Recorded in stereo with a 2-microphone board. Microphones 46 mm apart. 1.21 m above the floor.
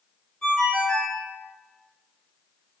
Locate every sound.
0.4 s a ringtone: 20° left (ahead or behind), 0.6 m